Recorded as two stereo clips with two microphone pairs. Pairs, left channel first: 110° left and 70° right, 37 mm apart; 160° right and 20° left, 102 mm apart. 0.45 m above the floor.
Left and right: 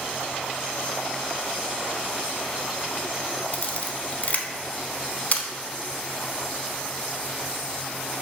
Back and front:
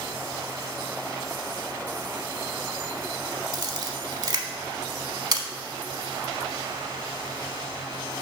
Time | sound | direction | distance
3.5 | a camera shutter | 65° left | 0.8 m